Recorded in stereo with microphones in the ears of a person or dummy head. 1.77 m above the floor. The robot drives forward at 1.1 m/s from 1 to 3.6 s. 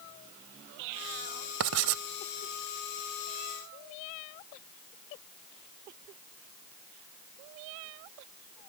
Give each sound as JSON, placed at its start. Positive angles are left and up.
{"t": 1.6, "sound": "writing", "side_deg": -75}